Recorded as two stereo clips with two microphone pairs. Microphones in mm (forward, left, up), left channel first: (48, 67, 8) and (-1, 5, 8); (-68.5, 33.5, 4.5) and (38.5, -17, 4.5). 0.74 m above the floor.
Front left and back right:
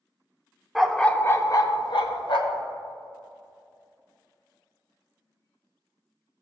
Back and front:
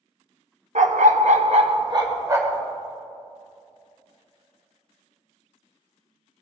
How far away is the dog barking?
About 0.7 m.